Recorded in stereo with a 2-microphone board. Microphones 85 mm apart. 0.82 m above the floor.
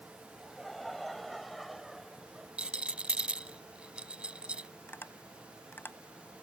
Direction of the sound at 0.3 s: Centre (ahead or behind).